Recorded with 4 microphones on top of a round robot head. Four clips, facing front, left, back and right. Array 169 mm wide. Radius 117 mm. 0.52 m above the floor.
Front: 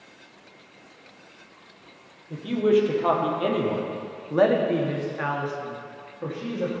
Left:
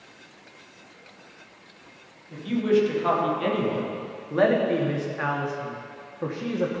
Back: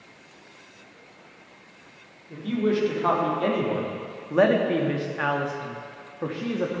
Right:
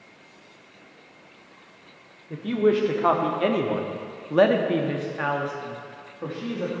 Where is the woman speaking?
75° right, 1.9 m; by 6.8 s 140° left, 1.5 m.